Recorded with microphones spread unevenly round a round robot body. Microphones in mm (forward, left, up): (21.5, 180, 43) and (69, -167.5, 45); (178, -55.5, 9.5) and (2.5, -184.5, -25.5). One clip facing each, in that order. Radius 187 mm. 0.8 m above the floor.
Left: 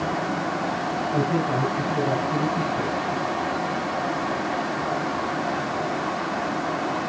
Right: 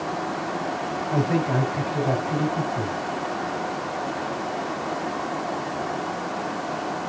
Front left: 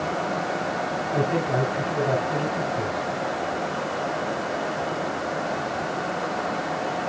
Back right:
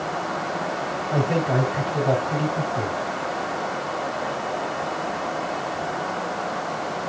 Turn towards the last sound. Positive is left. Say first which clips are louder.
# right 1 dB, back right 2 dB
turn(degrees=-115)